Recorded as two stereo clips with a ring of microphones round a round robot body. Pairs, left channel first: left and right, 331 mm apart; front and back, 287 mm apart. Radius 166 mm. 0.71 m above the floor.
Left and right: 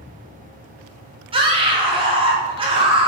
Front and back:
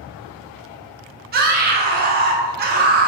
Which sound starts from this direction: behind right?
A scream, at 1.3 s.